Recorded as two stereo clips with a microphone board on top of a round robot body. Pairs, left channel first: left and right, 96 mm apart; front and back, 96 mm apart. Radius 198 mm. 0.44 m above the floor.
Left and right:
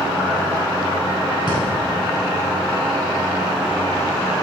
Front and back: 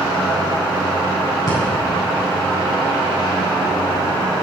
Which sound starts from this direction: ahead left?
Breathing, at 1.5 s.